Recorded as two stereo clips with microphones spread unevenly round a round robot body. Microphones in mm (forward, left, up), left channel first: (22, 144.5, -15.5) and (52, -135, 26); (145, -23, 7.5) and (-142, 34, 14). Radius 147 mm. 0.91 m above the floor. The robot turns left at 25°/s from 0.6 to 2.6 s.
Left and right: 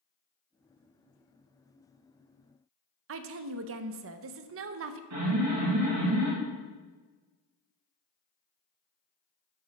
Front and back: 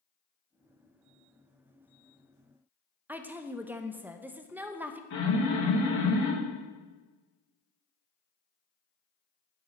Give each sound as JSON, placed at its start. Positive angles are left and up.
{"t": 3.1, "sound": "a woman speaking", "azimuth_deg": -110, "distance_m": 0.6}
{"t": 5.1, "sound": "an alarm", "azimuth_deg": -55, "distance_m": 3.5}